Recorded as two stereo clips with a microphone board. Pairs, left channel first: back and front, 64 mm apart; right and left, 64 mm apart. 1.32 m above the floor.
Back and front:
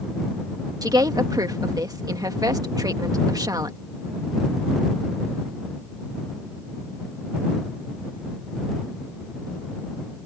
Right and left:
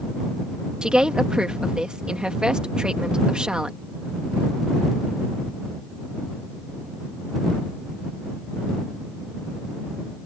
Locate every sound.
0.8 s a woman speaking: 15° left